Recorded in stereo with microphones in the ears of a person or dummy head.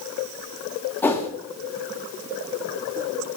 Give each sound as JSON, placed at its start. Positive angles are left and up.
{"t": 1.0, "sound": "a whoosh", "side_deg": 10, "distance_m": 0.9}